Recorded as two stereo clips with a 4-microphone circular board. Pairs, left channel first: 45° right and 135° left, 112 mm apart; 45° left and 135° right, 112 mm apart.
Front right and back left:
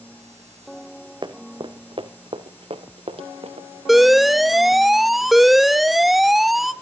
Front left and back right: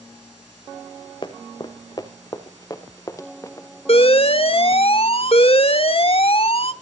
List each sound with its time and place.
1.2 s running footsteps: 85° left, 2 m; by 3.7 s 110° left, 3.5 m
3.9 s an alarm: 45° left, 1.0 m